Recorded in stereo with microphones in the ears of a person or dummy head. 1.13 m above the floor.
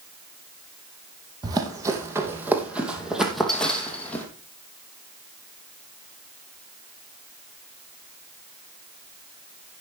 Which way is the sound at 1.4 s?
20° right (ahead or behind).